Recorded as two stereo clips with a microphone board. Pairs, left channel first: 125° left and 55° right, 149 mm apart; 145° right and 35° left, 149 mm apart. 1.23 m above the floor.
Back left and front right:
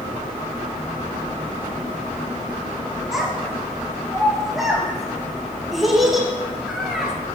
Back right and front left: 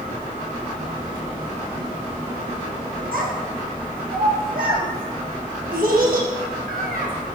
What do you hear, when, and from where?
3.1 s a child speaking: 35° left, 1.2 m